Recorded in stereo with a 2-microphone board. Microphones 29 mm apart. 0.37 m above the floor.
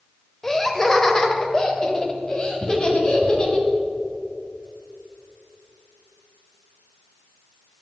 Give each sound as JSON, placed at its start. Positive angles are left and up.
{"t": 0.4, "sound": "laughter", "side_deg": 10, "distance_m": 1.3}